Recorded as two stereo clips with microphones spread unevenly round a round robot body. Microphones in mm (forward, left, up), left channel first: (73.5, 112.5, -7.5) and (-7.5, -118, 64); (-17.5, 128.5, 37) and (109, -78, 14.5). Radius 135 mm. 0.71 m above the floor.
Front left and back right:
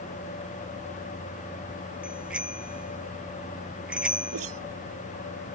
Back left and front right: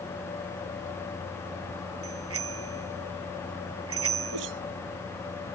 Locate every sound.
2.0 s a bicycle bell: 25° right
4.3 s a whoosh: 75° right